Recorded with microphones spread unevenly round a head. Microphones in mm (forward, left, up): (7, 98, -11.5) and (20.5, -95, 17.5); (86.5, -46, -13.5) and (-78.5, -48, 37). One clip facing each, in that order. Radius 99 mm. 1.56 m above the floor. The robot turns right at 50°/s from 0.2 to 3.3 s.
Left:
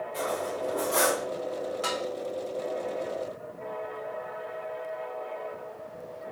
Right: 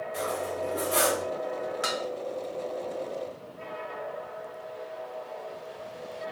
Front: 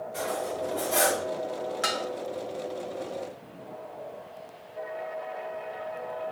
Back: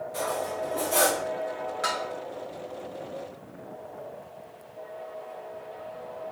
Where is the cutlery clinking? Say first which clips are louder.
Even, back 1 dB; 140° right, 1.8 m; by 1.2 s 90° right, 1.8 m.